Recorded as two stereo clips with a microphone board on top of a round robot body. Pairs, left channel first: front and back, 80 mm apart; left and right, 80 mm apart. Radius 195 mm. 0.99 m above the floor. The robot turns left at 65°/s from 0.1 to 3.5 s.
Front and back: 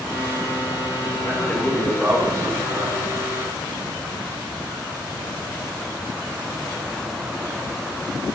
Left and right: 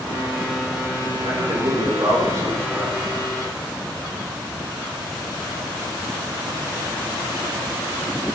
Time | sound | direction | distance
1.2 | a man speaking | 55° right | 3 m